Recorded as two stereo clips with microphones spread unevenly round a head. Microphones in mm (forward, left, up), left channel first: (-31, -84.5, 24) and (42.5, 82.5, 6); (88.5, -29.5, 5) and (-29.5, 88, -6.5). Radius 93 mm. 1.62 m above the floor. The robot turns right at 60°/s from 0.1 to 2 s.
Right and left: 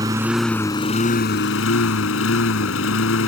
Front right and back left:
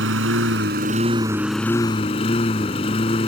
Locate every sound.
0.0 s a lawn mower: 140° left; by 3.3 s 105° right